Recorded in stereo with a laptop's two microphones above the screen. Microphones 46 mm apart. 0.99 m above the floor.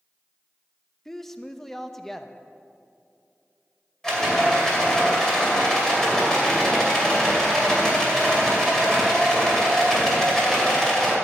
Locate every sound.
1.1 s a woman speaking: 5° left (ahead or behind), 0.8 m
4.0 s a rattle: 15° left (ahead or behind), 2 m